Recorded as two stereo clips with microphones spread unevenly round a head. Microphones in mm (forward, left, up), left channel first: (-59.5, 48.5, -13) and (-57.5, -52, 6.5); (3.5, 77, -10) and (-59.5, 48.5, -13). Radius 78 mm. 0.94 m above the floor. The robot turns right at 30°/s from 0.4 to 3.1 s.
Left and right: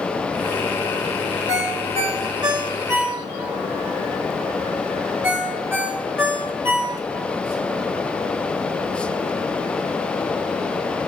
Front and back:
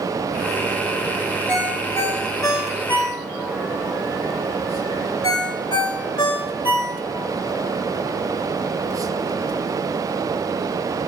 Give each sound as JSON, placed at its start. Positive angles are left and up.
{"t": 1.5, "sound": "a ringtone", "azimuth_deg": -60, "distance_m": 1.7}